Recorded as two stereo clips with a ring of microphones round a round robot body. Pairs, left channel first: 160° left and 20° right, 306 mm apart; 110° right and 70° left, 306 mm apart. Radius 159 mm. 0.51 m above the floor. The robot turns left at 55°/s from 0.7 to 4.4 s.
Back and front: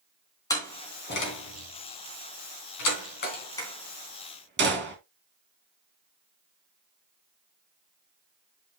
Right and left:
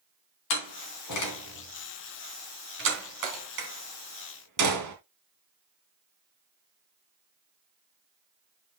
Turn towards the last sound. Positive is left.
turn(degrees=35)